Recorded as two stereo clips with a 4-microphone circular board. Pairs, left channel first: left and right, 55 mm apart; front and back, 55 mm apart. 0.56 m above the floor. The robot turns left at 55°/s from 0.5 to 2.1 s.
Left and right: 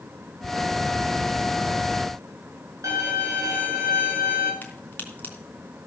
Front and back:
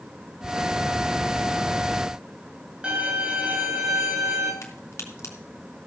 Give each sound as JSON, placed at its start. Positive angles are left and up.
{"t": 2.8, "sound": "a violin", "azimuth_deg": -110, "distance_m": 5.5}
{"t": 4.6, "sound": "a crack", "azimuth_deg": 30, "distance_m": 3.5}